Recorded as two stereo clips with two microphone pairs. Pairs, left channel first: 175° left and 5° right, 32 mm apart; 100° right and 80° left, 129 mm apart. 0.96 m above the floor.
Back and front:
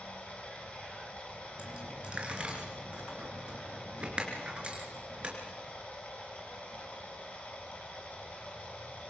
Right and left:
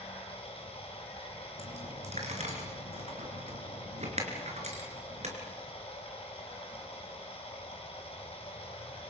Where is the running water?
145° right, 4 m.